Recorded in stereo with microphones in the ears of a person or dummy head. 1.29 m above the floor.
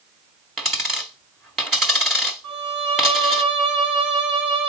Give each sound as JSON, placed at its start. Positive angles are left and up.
{"t": 0.6, "sound": "a dropped coin", "side_deg": 0, "distance_m": 1.4}
{"t": 2.4, "sound": "a violin", "side_deg": -55, "distance_m": 4.0}